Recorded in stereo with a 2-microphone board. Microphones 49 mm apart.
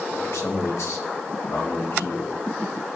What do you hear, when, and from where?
0.1 s a man speaking: 80° left, 2.5 m